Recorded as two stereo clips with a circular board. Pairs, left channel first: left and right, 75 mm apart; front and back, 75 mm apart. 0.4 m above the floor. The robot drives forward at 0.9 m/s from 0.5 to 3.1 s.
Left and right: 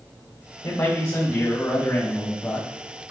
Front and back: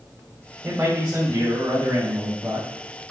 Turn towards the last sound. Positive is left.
turn(degrees=150)